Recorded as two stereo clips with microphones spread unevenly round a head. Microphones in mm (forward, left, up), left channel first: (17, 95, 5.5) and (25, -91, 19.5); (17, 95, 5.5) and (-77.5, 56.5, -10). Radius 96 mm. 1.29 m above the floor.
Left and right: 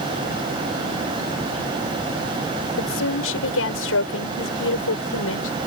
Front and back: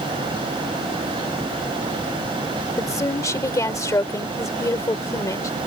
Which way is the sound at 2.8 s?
80° left.